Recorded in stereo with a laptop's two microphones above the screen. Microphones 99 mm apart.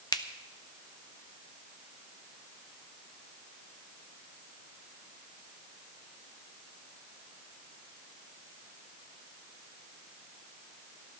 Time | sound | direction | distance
0.1 | a finger snap | 40° left (ahead or behind) | 0.6 m